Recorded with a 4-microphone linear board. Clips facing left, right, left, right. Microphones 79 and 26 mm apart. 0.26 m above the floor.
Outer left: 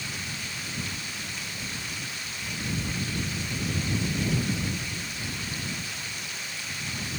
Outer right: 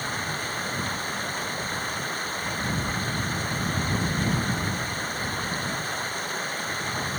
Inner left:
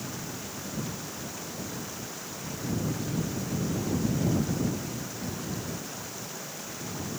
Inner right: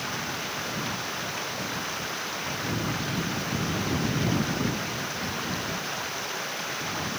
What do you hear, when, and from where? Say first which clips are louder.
0.0 s running water: outer right 7 dB, inner right 7 dB; 50° right (ahead or behind)